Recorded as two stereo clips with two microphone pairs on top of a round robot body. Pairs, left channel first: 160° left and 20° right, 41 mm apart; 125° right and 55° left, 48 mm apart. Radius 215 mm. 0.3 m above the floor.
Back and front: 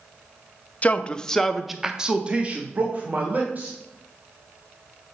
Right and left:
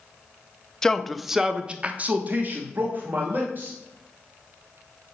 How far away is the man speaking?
About 1.0 m.